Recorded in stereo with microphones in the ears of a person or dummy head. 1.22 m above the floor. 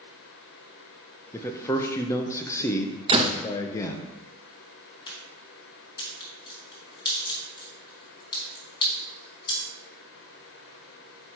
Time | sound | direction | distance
1.3 | a man speaking | 15° left (ahead or behind) | 0.7 m
3.1 | a door slam | 35° right (ahead or behind) | 0.5 m
5.1 | a crack | 20° left (ahead or behind) | 3 m